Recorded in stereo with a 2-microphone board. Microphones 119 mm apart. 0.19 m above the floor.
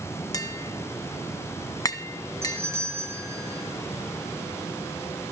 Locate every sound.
0.3 s tapping: 30° left (ahead or behind), 1.5 m
2.4 s a doorbell: 20° right (ahead or behind), 7 m